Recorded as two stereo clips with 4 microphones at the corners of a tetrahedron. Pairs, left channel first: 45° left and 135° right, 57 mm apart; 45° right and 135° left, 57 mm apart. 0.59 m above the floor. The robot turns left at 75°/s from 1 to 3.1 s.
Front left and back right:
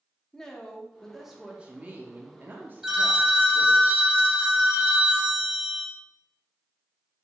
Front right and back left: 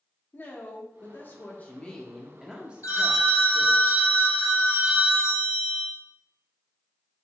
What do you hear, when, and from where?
0.3 s a woman speaking: 35° right, 0.7 m; by 3.8 s 170° left, 0.7 m
2.8 s a phone ringing: 55° right, 0.7 m; by 5.9 s 75° right, 0.7 m